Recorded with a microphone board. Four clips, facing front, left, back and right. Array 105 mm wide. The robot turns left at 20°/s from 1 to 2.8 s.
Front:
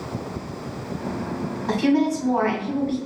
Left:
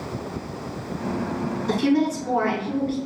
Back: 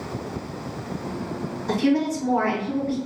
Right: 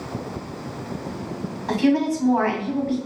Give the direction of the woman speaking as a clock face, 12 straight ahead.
2 o'clock.